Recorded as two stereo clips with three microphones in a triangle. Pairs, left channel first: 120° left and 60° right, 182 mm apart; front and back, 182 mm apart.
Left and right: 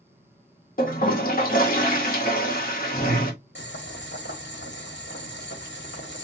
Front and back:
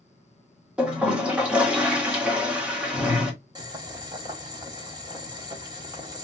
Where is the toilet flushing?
100° left, 1.0 m.